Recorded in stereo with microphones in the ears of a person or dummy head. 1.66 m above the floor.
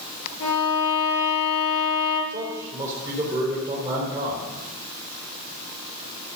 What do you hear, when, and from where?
0.4 s a violin: 70° left (ahead or behind), 6 m
2.3 s a man speaking: 15° right (ahead or behind), 4 m